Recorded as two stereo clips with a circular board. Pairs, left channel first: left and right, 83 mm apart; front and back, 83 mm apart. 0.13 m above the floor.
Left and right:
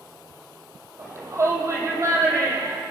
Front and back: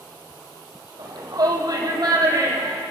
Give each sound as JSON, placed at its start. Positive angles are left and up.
{"t": 1.0, "sound": "a shout", "azimuth_deg": -145, "distance_m": 5.5}